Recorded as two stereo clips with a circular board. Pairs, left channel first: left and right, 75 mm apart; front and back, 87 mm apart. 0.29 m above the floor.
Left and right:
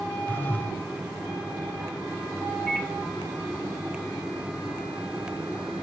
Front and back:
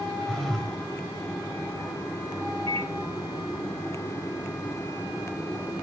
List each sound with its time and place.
0.3 s a phone buzzing: 80° left, 1.5 m
2.7 s a microwave: 170° left, 3 m